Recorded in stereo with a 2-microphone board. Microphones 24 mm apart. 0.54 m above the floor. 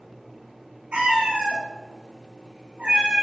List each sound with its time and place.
0.9 s a cat meowing: 60° right (ahead or behind), 1.1 m; by 3.2 s 25° right (ahead or behind), 0.8 m